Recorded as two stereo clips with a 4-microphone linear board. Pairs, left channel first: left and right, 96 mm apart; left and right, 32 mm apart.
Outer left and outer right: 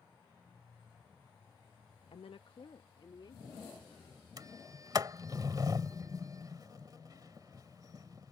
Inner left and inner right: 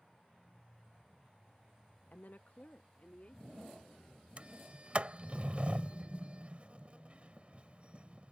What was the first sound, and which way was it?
A woman speaking, 75° left (ahead or behind).